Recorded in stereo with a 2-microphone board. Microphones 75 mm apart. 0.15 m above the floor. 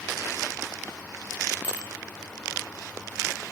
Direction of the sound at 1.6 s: 25° right (ahead or behind).